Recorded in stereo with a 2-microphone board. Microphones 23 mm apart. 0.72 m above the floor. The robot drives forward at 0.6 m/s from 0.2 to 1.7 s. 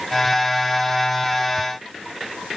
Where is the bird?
No bird in this recording.